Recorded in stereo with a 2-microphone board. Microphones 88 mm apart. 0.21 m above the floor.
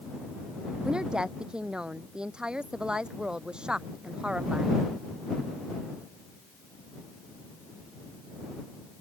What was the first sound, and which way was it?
A woman speaking, 10° right (ahead or behind).